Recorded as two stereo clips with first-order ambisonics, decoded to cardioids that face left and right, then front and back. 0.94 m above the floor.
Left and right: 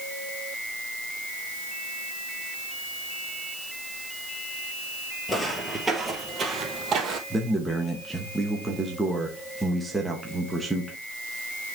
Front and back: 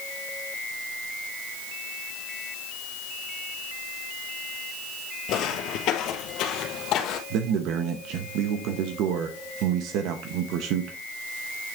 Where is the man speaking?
175° right, 0.9 m.